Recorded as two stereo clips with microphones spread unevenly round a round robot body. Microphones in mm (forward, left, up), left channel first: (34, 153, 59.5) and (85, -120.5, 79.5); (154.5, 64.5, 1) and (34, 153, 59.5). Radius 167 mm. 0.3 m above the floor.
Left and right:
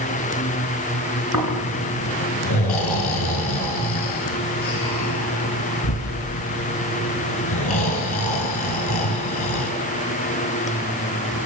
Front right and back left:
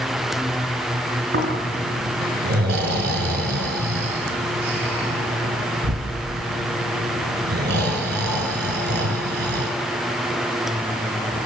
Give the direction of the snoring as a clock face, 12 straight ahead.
7 o'clock.